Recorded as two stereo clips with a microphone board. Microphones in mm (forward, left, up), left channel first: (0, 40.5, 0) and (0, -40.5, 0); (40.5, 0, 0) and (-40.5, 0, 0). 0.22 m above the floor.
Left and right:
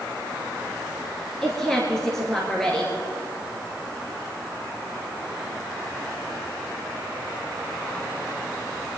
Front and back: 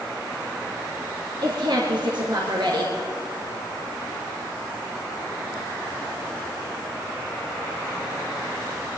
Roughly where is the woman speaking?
Behind.